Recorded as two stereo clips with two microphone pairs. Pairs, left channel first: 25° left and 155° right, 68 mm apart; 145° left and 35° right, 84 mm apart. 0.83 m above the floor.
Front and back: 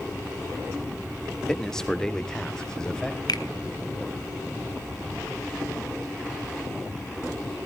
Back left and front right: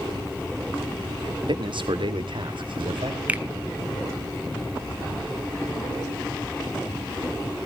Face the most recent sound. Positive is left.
turn(degrees=40)